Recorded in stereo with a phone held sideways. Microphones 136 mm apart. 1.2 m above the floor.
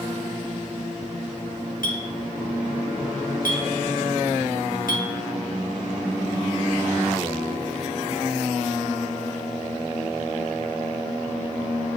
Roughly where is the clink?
Left.